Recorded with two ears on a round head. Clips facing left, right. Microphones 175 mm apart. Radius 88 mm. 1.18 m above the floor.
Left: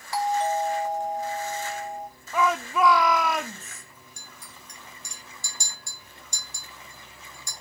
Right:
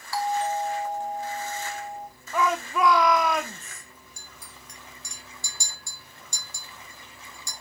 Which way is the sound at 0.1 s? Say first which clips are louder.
Left 2 dB; 20° left (ahead or behind).